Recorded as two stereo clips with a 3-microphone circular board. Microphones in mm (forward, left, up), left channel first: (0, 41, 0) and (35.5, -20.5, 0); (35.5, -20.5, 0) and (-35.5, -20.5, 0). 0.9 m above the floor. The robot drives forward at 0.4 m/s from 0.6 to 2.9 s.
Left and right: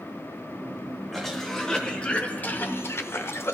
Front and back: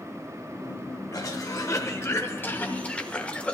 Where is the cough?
30° left, 1.1 m; by 3.5 s 70° left, 0.7 m.